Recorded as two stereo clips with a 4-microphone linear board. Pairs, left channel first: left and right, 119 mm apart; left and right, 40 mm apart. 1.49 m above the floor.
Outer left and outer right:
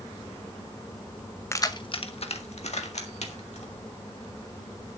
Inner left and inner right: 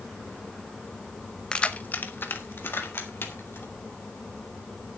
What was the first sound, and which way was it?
Keys jangling, 25° left (ahead or behind).